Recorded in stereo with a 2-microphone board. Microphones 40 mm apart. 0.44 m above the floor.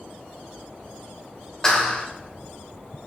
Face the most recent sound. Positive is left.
turn(degrees=20)  # may be behind; listen again after turning